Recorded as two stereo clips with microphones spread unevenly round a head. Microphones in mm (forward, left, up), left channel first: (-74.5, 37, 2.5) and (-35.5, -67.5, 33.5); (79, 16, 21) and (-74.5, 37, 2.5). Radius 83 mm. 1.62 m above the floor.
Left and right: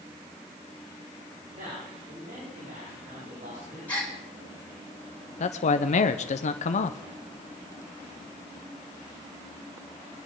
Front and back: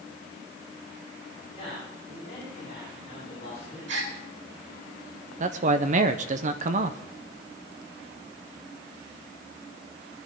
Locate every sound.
1.5 s a man speaking: 65° right, 8.5 m; by 3.8 s 55° right, 6.5 m
3.9 s a gasp: 175° right, 6.5 m
5.4 s a man speaking: 130° left, 0.6 m